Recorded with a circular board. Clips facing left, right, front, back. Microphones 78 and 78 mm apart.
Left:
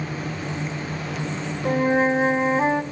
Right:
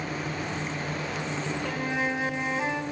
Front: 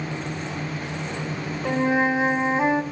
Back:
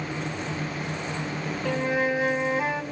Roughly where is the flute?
Ahead left.